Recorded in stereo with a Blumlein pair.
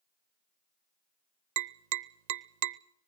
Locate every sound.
1.6 s tapping: 50° right, 0.6 m